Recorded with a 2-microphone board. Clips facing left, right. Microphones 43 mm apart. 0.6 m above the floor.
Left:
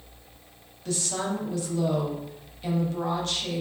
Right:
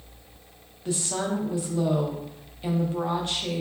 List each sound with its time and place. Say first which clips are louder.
0.8 s a woman speaking: right 1 dB; 20° right (ahead or behind), 0.5 m